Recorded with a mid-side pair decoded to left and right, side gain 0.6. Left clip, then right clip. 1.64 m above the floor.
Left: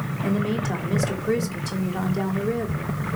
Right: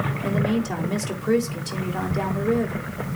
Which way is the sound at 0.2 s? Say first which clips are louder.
Left 1 dB; 10° right.